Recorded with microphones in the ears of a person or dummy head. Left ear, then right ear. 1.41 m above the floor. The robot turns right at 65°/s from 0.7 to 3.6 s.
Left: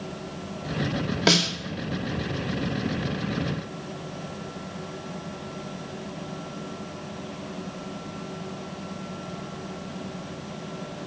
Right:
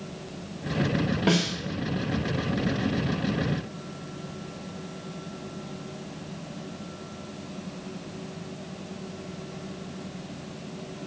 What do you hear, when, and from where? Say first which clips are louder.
1.3 s a snare drum: left 6 dB; 40° left (ahead or behind), 1.7 m; by 1.5 s 55° left (ahead or behind), 1.7 m